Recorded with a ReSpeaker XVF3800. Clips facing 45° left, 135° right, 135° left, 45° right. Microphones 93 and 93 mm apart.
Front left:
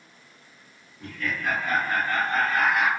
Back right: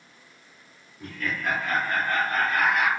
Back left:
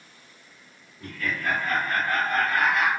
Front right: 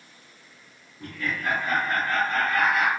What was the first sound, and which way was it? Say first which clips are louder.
Laughter: even, even; 60° right.